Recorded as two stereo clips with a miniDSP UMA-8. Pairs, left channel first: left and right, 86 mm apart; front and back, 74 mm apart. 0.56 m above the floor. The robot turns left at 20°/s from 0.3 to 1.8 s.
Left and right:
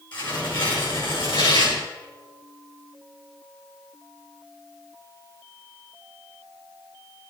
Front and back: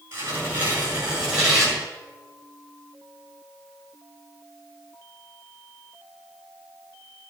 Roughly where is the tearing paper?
Behind left.